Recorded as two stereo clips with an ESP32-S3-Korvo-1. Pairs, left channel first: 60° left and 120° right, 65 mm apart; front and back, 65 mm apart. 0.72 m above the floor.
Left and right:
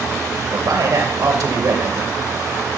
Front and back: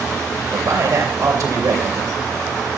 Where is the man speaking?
150° right, 2.5 m.